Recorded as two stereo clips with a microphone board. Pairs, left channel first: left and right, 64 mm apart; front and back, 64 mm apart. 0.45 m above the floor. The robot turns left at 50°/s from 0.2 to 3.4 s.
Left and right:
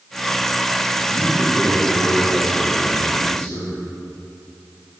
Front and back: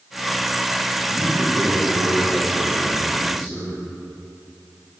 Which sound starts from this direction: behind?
A man speaking, at 1.1 s.